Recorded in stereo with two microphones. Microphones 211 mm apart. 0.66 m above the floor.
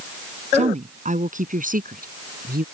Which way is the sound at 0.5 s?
30° right (ahead or behind).